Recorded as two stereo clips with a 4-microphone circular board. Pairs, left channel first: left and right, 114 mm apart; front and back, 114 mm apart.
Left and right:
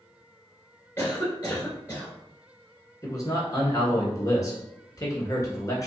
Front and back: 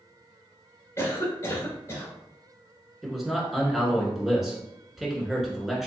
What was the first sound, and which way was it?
A cough, 40° left.